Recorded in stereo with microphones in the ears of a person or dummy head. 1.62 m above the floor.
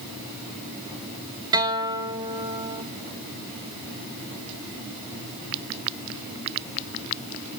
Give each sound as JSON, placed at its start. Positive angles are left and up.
{"t": 1.5, "sound": "a guitar", "side_deg": -25, "distance_m": 0.9}